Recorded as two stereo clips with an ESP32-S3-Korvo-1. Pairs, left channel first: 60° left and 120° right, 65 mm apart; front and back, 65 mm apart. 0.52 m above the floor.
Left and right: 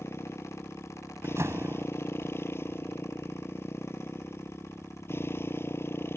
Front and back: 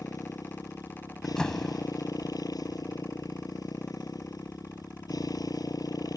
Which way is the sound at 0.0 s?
10° left.